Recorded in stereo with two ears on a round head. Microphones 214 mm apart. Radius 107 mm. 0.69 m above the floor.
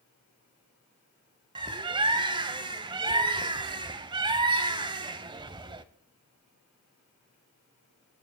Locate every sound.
1.6 s a bird: 20° right (ahead or behind), 0.6 m